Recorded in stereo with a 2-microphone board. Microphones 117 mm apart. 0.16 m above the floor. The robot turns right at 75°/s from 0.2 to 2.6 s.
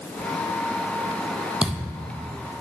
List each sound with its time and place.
1.6 s a thud: 170° right, 1.5 m; by 2.3 s 115° right, 1.5 m